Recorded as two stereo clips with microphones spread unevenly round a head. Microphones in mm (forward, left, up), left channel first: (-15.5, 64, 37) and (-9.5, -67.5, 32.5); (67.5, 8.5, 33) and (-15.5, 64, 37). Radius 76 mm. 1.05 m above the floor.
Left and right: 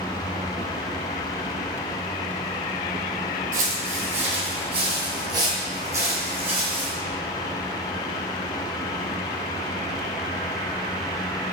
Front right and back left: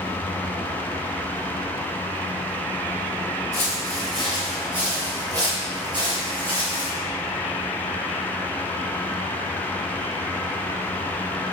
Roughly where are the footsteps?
Right.